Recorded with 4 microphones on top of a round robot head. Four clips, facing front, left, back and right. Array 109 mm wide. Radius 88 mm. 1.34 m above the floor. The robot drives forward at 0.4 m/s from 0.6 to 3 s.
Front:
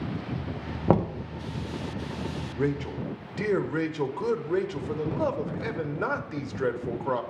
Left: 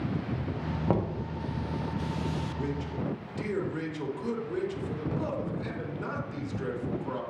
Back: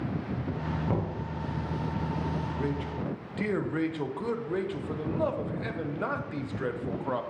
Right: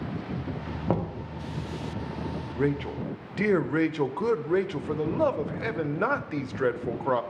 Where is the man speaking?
60° right, 0.7 m; by 7.2 s 75° right, 0.6 m.